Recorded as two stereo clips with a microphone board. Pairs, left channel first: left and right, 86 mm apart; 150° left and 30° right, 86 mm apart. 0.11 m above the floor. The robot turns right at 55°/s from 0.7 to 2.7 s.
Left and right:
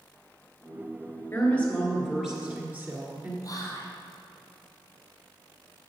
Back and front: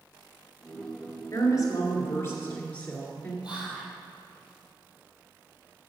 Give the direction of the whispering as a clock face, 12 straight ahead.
10 o'clock.